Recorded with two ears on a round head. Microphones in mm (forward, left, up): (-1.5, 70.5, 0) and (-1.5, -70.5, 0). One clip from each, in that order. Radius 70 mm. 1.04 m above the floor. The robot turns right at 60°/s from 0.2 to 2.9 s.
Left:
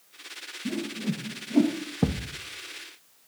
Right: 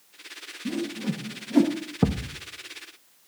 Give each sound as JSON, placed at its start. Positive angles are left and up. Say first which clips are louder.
{"t": 0.7, "sound": "a whoosh", "louder": "right 2 dB", "side_deg": 5, "distance_m": 1.0}
{"t": 2.0, "sound": "a thud", "louder": "right 3 dB", "side_deg": -25, "distance_m": 0.5}